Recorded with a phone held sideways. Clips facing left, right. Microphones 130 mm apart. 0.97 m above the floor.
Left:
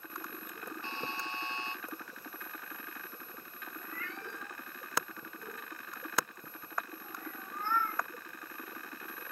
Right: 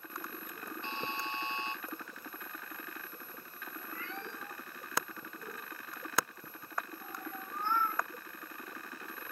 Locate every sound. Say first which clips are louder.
0.8 s a buzzer: right 2 dB; 20° right (ahead or behind), 3 m
3.8 s a cat meowing: right 1 dB; 20° right (ahead or behind), 1.3 m